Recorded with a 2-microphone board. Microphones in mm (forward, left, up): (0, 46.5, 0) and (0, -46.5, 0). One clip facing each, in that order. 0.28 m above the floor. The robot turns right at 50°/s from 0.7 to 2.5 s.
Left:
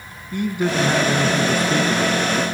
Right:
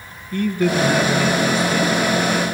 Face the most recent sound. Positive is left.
turn(degrees=110)